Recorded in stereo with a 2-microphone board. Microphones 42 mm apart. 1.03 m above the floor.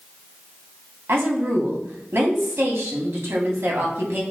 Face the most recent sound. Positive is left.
turn(degrees=-70)  # may be behind; listen again after turning